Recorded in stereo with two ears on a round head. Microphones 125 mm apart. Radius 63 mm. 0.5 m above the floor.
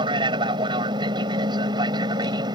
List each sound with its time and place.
0.0 s an aircraft: 35° right (ahead or behind); by 2.6 s 30° right (ahead or behind)